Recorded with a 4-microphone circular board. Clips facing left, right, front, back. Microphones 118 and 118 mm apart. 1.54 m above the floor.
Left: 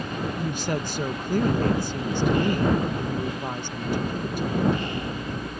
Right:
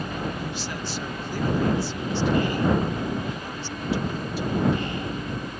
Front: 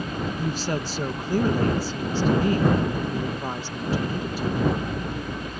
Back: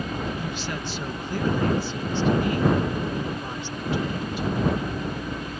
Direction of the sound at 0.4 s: 50° left.